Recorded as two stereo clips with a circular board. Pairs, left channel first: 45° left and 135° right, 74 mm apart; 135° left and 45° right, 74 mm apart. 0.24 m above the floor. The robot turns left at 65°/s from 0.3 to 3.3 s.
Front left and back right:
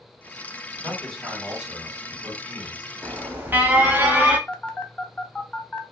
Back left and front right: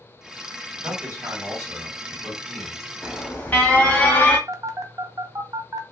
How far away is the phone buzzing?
About 0.6 m.